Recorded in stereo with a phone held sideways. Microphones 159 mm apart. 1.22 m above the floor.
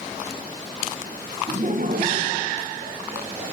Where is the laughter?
40° right (ahead or behind), 1.1 m; by 3.5 s 65° right (ahead or behind), 2.5 m.